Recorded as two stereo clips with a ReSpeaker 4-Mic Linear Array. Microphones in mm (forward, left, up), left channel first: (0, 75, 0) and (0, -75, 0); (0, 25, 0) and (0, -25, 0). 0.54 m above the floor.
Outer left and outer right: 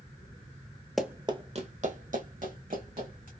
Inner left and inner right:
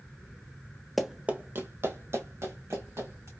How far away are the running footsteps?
About 0.6 m.